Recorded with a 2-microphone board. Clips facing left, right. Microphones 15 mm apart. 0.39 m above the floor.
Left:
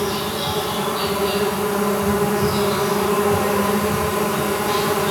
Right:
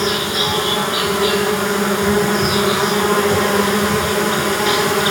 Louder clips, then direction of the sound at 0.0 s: Right 5 dB; 65° right (ahead or behind).